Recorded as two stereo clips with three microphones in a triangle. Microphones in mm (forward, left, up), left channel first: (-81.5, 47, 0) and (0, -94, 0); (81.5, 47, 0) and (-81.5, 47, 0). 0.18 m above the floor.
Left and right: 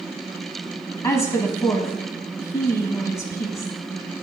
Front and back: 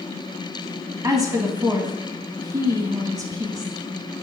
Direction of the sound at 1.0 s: 155° left.